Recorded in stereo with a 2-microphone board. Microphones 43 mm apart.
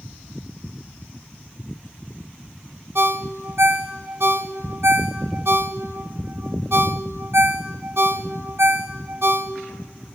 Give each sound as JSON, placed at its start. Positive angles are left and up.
{"t": 3.0, "sound": "a ringtone", "side_deg": -70, "distance_m": 1.2}